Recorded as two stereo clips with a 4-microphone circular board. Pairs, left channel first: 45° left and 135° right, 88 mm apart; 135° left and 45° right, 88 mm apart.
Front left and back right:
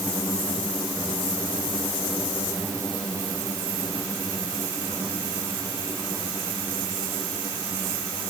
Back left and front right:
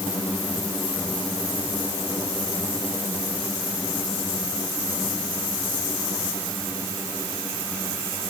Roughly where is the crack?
No crack in this recording.